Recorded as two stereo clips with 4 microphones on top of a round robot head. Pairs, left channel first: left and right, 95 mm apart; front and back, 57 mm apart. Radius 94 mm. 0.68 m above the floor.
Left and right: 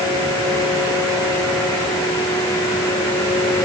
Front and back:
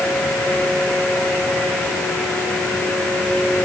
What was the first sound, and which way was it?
Only background noise.